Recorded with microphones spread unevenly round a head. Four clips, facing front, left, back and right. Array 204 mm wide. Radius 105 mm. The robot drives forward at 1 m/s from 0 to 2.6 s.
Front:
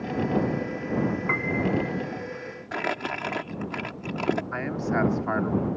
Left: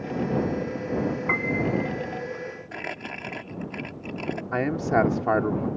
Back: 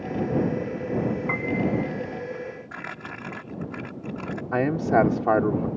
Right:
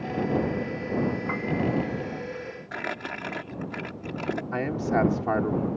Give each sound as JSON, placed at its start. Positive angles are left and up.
{"t": 1.3, "sound": "a piano", "azimuth_deg": 65}
{"t": 2.7, "sound": "crumpling", "azimuth_deg": -5}
{"t": 4.5, "sound": "a man speaking", "azimuth_deg": 160}